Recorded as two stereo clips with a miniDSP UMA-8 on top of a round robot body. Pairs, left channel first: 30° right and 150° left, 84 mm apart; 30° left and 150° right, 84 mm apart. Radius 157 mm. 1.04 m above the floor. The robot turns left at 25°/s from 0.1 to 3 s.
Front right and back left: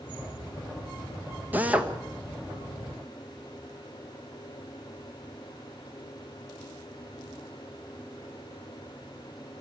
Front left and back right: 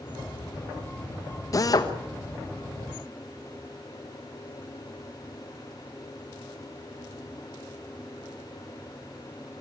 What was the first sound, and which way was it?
A drill, 80° left.